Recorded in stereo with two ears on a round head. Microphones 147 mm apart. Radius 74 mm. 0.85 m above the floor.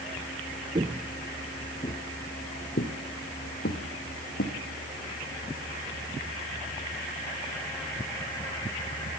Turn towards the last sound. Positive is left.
turn(degrees=60)  # may be behind; listen again after turning